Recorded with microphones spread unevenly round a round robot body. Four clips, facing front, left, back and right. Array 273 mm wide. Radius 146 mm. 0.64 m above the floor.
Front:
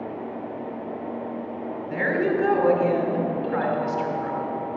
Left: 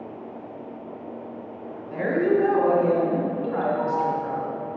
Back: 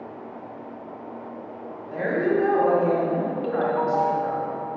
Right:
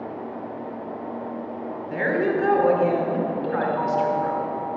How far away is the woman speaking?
About 2.5 m.